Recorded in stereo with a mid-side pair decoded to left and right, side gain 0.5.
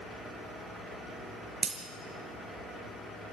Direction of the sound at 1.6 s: 30° right.